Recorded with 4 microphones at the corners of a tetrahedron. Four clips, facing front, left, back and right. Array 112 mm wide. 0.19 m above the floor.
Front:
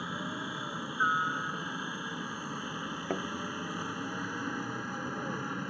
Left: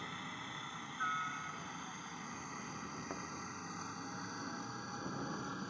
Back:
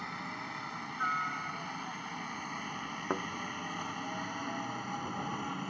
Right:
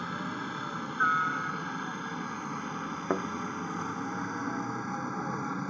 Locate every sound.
0.0 s a helicopter: 70° right; by 5.7 s 95° right
3.1 s a thud: 105° right